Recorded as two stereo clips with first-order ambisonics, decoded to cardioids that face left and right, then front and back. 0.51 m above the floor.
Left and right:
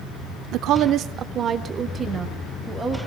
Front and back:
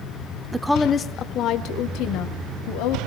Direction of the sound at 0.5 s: 100° right.